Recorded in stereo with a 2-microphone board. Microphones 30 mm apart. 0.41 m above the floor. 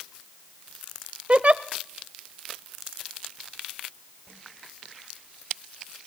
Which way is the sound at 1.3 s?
40° right (ahead or behind).